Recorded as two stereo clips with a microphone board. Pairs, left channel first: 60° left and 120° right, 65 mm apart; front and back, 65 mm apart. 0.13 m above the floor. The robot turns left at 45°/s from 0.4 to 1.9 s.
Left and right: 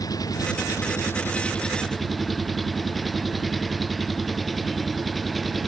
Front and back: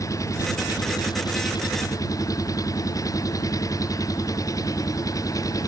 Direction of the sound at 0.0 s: 35° left.